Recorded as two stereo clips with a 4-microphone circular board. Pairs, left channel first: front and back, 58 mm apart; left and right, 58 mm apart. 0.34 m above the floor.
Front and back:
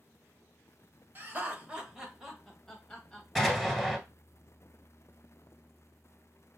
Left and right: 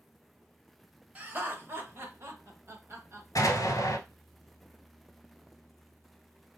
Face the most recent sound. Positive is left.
turn(degrees=90)